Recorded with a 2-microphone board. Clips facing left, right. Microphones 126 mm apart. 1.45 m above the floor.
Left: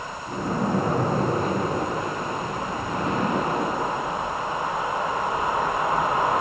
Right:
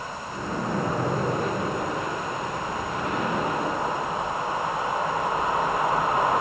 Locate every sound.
0.3 s a splash: 35° left (ahead or behind), 9.5 m